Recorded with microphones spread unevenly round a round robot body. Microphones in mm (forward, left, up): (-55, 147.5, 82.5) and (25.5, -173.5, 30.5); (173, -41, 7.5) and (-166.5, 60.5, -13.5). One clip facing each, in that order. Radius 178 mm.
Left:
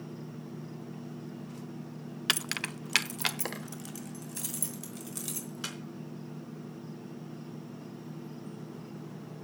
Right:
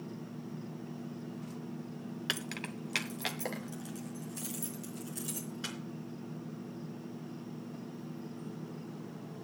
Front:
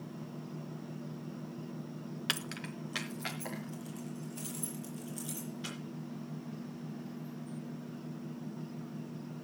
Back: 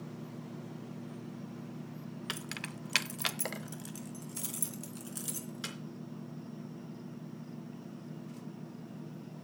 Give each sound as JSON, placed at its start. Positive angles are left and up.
{"t": 2.3, "sound": "keys jangling", "azimuth_deg": 50, "distance_m": 0.5}